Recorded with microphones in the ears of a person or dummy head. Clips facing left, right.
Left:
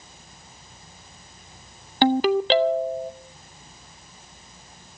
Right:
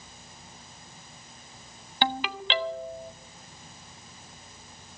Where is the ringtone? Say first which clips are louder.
Left 12 dB; 35° left (ahead or behind), 0.5 m.